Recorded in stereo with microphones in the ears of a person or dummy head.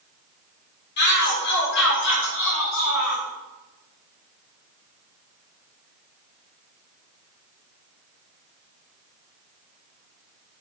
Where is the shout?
55° left (ahead or behind), 3.5 m; by 3.2 s 75° left (ahead or behind), 3.5 m.